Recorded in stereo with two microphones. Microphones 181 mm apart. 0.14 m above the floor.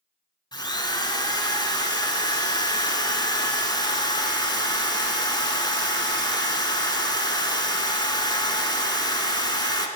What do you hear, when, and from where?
0.5 s a drill: 25° left (ahead or behind), 0.8 m